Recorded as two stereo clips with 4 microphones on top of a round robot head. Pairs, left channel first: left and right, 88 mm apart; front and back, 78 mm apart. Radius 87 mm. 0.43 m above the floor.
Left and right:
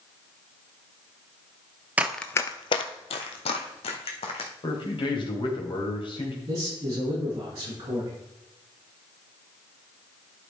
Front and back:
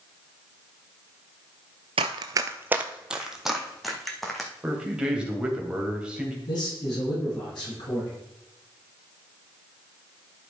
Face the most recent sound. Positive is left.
turn(degrees=-35)